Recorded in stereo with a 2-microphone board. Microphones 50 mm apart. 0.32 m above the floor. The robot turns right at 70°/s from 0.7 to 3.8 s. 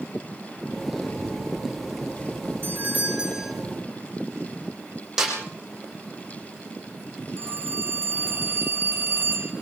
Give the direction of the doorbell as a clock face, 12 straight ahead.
2 o'clock.